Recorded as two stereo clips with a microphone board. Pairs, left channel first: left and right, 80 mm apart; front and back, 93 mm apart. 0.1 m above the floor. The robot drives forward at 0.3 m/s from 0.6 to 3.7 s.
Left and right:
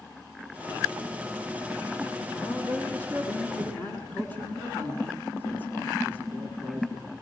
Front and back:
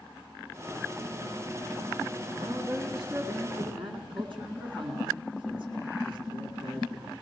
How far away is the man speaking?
About 7 m.